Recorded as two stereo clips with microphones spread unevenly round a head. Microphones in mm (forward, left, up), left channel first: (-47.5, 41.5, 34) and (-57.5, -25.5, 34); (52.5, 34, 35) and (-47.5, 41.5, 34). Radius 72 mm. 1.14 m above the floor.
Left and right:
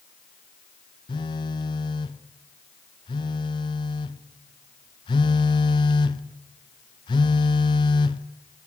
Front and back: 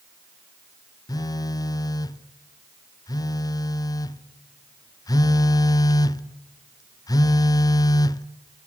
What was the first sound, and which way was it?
A phone buzzing, 50° left.